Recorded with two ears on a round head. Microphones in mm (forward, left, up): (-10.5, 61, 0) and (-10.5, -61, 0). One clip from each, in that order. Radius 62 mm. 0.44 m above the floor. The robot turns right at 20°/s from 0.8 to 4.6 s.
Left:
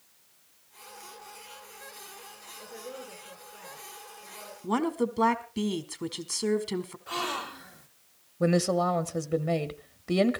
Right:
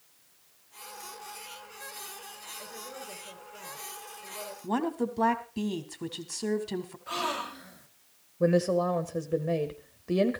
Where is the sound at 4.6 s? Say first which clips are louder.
Left 2 dB; 15° left (ahead or behind), 1.3 m.